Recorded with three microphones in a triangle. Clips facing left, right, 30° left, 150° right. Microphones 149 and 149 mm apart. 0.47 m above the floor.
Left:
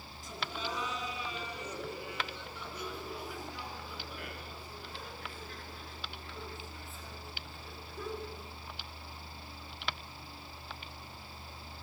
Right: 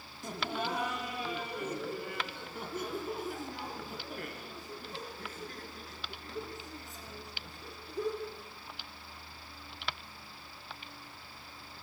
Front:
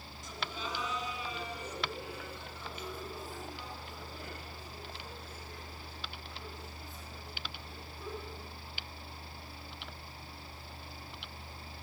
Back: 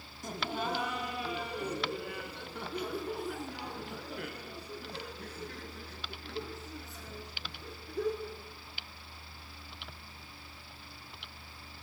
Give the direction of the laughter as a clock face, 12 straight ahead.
4 o'clock.